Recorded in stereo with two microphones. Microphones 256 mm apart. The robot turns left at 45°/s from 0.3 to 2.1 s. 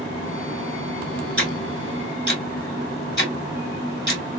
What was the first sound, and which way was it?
Ticking, 45° left (ahead or behind).